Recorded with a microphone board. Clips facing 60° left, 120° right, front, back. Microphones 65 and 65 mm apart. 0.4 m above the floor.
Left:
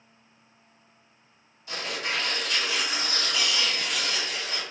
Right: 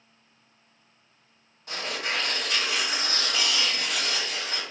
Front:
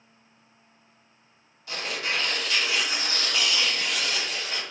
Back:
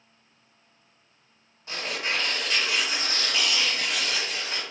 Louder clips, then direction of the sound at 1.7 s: Even, even; 125° right.